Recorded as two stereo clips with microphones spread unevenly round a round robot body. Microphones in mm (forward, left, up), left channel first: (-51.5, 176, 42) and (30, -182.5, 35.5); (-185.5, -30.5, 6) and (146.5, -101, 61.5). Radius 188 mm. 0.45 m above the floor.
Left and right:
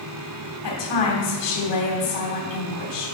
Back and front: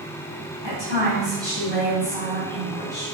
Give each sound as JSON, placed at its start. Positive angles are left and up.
{"t": 0.6, "sound": "a woman speaking", "azimuth_deg": 70, "distance_m": 2.5}